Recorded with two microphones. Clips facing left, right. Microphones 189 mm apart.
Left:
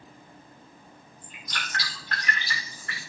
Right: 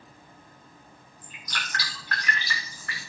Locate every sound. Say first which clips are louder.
1.2 s dripping: even; 25° left (ahead or behind), 8.5 m